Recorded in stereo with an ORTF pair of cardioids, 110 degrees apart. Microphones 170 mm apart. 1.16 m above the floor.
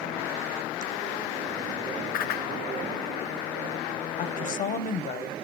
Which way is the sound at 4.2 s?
50° left.